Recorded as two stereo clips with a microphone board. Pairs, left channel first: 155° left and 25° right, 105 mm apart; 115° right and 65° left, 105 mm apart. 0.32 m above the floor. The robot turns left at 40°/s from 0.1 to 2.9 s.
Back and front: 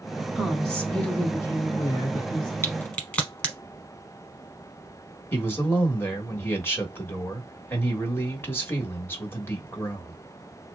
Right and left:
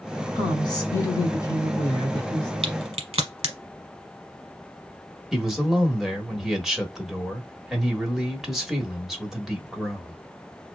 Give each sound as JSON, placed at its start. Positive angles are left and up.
{"t": 0.3, "sound": "a woman speaking", "azimuth_deg": -110, "distance_m": 1.9}
{"t": 2.6, "sound": "a crack", "azimuth_deg": 90, "distance_m": 1.0}
{"t": 5.3, "sound": "a man speaking", "azimuth_deg": 150, "distance_m": 1.1}